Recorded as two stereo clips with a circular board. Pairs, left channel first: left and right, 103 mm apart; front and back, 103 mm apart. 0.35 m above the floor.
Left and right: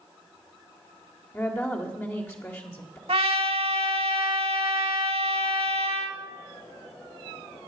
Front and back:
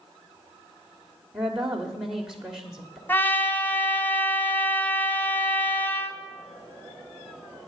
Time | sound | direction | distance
1.3 | a woman speaking | 105° left | 1.4 m
3.1 | a trumpet | 70° right | 1.1 m